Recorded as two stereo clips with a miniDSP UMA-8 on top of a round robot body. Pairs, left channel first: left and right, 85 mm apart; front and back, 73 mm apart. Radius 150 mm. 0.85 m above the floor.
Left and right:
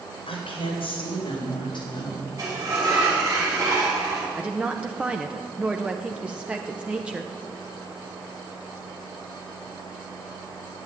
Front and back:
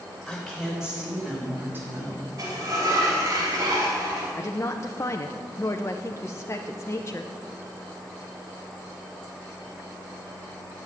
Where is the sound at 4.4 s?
20° right, 1.0 m.